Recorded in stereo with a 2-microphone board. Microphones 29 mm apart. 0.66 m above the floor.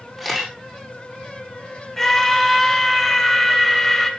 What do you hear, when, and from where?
0.2 s a camera shutter: 5° left (ahead or behind), 10 m
2.0 s a scream: 10° left (ahead or behind), 2.5 m